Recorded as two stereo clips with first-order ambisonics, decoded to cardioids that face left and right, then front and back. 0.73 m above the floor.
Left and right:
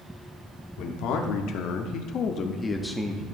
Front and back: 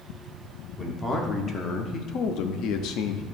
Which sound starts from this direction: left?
A man speaking, at 0.8 s.